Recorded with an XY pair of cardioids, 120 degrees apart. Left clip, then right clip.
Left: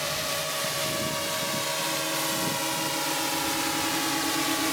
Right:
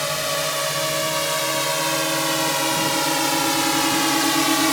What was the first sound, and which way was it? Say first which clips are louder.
A drone: right 6 dB; 40° right.